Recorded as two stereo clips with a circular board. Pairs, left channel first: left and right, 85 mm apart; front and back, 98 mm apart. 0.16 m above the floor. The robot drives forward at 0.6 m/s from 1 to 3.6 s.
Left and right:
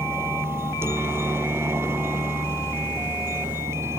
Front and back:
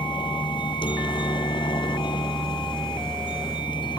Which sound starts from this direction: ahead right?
A helicopter, at 0.0 s.